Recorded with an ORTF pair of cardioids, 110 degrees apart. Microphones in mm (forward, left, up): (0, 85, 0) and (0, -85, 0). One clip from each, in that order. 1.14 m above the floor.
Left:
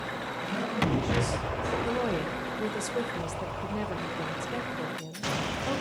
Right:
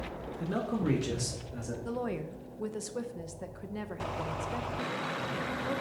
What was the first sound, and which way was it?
A man speaking, 65° right.